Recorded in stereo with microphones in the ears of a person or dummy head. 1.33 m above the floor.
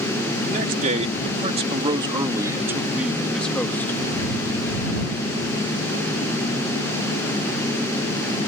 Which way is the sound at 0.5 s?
45° right (ahead or behind).